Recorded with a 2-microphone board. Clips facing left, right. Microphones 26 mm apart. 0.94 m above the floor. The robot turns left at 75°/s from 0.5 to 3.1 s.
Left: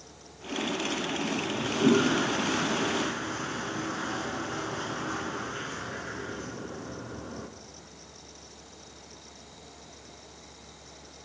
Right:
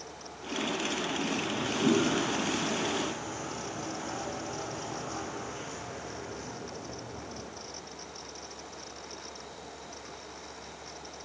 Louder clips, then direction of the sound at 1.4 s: Left 2 dB; 170° right.